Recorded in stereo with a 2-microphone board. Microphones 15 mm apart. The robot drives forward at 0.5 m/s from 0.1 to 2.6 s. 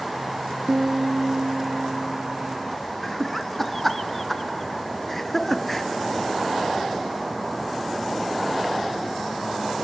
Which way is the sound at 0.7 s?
50° right (ahead or behind).